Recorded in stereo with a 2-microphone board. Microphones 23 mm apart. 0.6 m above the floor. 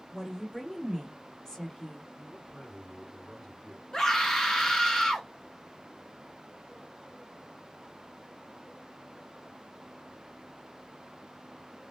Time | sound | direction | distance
0.1 | a woman speaking | 5° left (ahead or behind) | 1.7 m
2.2 | a man speaking | 25° left (ahead or behind) | 1.9 m
3.9 | a scream | 25° left (ahead or behind) | 0.7 m